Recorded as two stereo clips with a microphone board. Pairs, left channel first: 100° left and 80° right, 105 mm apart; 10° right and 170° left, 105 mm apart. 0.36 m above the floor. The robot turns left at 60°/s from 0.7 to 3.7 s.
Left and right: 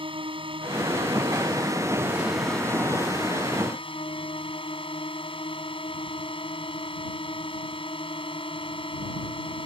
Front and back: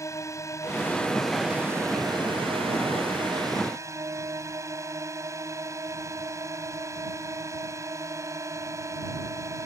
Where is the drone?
65° right; by 9.7 s 115° left.